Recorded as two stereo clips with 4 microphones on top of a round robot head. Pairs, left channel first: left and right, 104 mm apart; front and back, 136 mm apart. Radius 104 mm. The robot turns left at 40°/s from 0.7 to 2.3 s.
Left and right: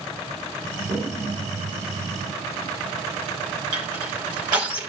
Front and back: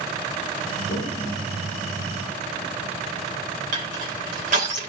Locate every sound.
0.9 s a toilet flushing: 40° right, 3.5 m; by 2.7 s 100° right, 3.5 m
3.7 s crushing: 145° right, 3 m